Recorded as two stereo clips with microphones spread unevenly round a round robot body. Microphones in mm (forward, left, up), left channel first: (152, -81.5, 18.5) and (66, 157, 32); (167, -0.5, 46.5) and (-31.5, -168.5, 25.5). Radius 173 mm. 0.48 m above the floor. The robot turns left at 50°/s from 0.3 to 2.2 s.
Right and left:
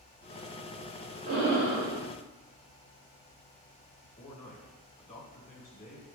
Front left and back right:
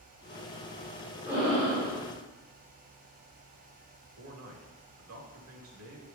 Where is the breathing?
145° left, 1.9 m; by 2.0 s 110° left, 1.9 m.